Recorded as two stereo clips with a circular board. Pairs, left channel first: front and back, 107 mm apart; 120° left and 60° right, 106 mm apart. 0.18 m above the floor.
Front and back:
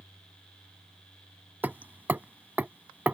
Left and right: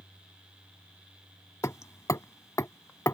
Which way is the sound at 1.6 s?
125° left.